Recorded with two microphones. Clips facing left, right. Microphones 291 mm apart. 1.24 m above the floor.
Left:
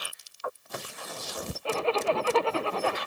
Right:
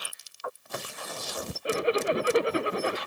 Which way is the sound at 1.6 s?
20° right (ahead or behind).